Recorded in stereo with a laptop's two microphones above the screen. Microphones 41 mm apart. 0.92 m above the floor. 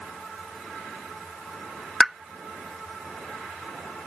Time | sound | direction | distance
2.0 | a pop | 5° right (ahead or behind) | ?